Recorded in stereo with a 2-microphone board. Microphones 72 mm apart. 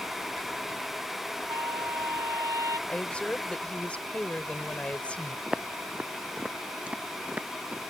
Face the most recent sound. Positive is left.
turn(degrees=-20)  # may be behind; listen again after turning